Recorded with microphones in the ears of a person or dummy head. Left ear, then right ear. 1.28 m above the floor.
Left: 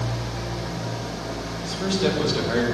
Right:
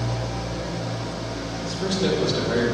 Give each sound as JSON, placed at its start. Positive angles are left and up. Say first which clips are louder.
{"t": 0.0, "sound": "an engine running", "louder": "right 1 dB", "side_deg": 40, "distance_m": 1.1}
{"t": 1.6, "sound": "a man speaking", "louder": "even", "side_deg": 30, "distance_m": 0.9}